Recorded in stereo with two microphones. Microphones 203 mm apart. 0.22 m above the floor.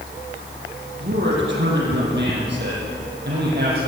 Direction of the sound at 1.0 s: 65° right (ahead or behind).